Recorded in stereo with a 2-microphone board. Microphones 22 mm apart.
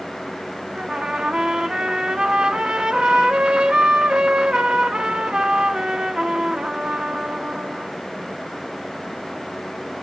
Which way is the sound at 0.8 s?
55° right (ahead or behind).